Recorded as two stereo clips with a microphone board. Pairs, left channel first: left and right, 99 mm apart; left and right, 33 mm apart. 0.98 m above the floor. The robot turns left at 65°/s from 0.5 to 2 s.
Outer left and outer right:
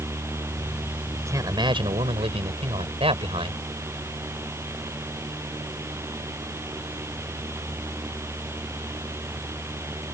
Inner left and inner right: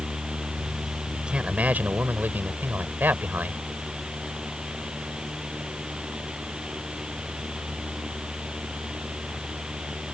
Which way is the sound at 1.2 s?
25° right.